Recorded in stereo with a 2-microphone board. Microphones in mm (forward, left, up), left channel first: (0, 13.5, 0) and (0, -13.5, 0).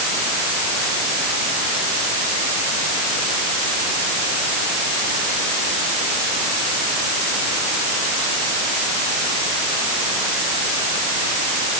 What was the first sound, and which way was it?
Only background noise.